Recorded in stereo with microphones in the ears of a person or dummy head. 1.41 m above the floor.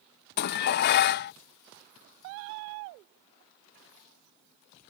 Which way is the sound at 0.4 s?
55° left (ahead or behind).